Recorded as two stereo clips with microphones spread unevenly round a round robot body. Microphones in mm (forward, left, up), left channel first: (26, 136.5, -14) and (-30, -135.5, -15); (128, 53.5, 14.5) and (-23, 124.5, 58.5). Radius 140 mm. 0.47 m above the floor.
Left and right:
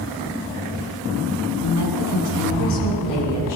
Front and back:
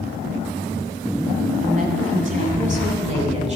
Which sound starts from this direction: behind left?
A woman speaking, at 1.6 s.